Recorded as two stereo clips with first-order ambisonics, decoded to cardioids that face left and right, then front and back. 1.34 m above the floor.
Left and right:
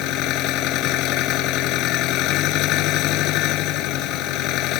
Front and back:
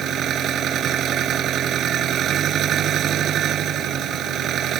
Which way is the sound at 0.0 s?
125° left.